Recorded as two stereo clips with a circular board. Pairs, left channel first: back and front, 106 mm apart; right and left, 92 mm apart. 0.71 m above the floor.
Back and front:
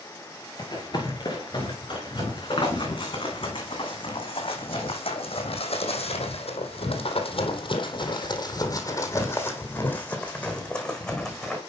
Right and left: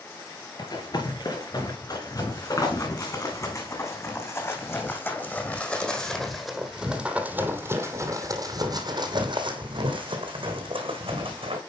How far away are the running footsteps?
About 4.5 m.